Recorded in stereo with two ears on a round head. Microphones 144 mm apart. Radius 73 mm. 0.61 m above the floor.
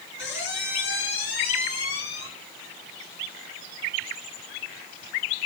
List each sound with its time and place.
0.2 s a squeak: 80° left, 5 m